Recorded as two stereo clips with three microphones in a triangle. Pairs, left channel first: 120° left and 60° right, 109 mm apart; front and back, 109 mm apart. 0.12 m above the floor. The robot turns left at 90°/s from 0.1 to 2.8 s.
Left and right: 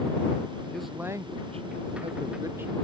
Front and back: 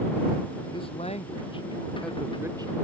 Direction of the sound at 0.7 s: 40° left.